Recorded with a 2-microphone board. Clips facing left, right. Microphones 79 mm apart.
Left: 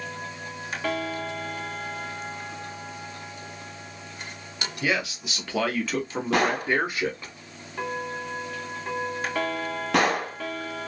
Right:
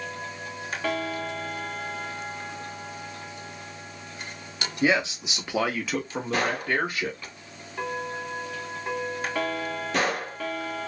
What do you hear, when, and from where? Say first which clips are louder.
4.8 s a man speaking: right 4 dB; 25° right (ahead or behind), 1.0 m; by 7.3 s 25° left (ahead or behind), 1.1 m
6.3 s a gunshot: left 3 dB; 75° left (ahead or behind), 1.0 m